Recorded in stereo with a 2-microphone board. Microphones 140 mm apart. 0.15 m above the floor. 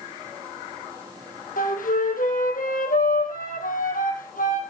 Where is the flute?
75° left (ahead or behind), 2.5 m.